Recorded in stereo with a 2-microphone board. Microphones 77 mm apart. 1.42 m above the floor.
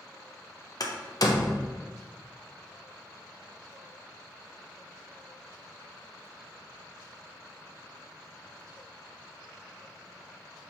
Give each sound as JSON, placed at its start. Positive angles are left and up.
{"t": 0.8, "sound": "a door slam", "side_deg": 50, "distance_m": 0.5}